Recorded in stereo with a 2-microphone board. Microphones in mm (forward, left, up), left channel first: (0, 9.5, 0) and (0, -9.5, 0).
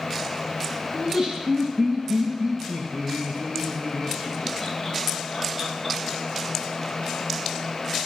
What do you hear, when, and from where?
0.9 s laughter: 60° right (ahead or behind), 2.5 m; by 6.0 s 25° right (ahead or behind), 4 m